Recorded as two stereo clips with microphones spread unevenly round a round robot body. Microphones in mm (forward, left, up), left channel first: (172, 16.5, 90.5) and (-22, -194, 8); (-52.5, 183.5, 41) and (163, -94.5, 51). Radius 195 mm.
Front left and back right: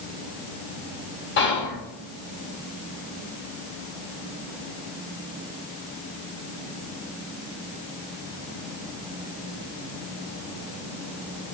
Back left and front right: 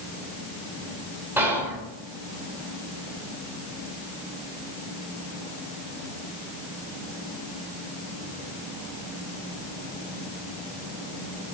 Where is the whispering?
25° left, 1.0 m.